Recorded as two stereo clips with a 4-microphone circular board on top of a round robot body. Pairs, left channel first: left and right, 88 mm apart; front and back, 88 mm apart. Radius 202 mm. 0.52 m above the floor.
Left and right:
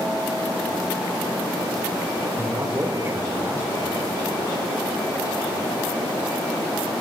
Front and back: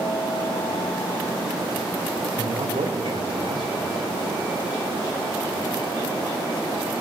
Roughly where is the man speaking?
Behind right.